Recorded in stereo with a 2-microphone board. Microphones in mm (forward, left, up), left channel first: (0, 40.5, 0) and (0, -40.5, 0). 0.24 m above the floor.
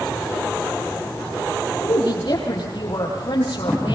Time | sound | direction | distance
1.8 | a woman speaking | 55° left (ahead or behind) | 9.5 m